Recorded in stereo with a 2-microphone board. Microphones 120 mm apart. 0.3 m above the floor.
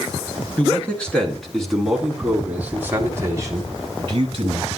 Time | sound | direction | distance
0.6 | a man speaking | 15° left (ahead or behind) | 3.5 m